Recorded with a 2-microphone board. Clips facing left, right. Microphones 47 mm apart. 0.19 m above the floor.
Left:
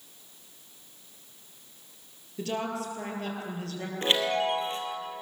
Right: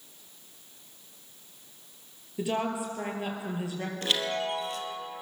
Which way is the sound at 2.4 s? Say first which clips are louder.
Right 2 dB; 10° right (ahead or behind).